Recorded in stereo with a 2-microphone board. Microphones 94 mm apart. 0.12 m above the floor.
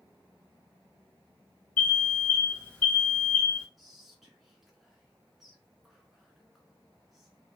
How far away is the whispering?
About 1.2 m.